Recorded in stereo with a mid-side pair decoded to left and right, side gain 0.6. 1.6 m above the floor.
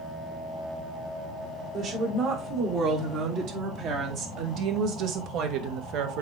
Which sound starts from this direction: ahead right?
A woman speaking, at 1.7 s.